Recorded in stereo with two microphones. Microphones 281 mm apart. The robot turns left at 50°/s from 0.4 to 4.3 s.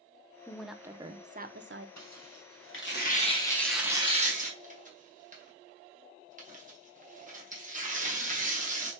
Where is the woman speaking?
10° left, 0.7 m; by 1.9 s 60° right, 0.7 m.